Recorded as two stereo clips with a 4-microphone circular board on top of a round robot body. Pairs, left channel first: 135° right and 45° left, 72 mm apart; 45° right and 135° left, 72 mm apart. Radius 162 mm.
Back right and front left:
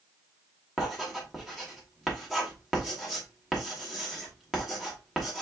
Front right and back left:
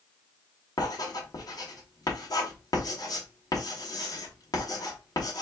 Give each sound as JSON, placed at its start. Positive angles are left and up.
{"t": 0.8, "sound": "writing", "azimuth_deg": -45, "distance_m": 2.0}